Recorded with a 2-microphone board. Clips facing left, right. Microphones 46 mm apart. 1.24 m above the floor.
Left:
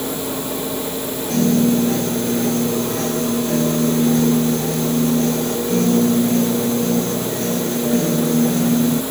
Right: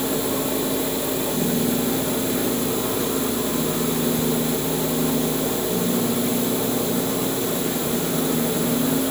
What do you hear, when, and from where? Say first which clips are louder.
1.3 s a piano: left 9 dB; 75° left (ahead or behind)